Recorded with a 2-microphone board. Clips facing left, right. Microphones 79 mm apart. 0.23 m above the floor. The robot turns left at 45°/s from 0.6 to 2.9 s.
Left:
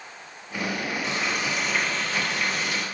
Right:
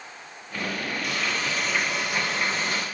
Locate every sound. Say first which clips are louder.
1.0 s frying: even; 30° left, 5 m; by 2.9 s 50° right, 5 m